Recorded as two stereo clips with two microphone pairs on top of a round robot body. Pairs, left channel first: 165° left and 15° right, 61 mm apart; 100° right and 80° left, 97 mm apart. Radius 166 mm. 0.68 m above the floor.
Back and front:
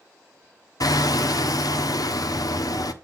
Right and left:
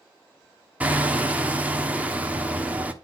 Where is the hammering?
160° left, 1.4 m.